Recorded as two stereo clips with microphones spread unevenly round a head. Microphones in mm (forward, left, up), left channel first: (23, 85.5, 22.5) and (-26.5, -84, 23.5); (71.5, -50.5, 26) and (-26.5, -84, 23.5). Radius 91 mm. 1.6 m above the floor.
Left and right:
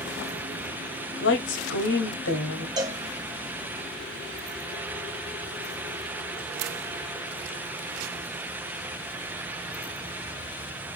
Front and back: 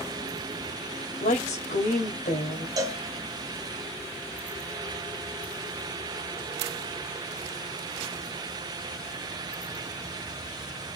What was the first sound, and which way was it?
A woman speaking, 45° left.